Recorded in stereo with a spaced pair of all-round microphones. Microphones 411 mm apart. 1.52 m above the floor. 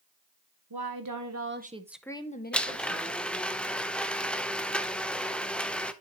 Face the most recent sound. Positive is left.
turn(degrees=0)  # may be behind; listen again after turning